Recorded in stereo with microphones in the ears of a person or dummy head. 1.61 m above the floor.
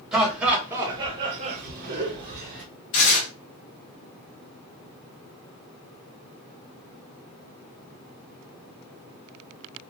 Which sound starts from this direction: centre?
Laughter, at 0.1 s.